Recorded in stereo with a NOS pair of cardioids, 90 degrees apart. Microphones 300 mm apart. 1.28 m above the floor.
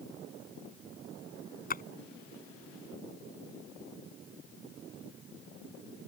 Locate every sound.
1.7 s a splash: 30° left